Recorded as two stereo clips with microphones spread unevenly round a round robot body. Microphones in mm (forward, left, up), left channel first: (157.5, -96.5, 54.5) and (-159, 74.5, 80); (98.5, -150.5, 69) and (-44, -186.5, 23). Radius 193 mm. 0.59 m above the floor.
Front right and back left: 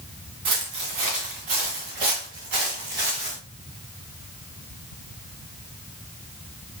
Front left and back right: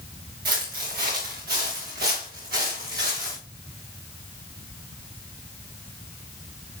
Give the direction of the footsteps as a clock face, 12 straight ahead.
6 o'clock.